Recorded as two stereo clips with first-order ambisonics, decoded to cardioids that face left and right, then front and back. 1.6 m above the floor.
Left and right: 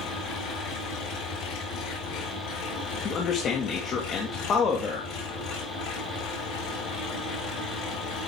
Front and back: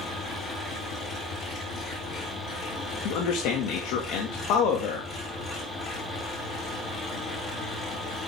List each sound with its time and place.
0.0 s an engine running: 60° left, 7 m
3.0 s a man speaking: 30° left, 2.5 m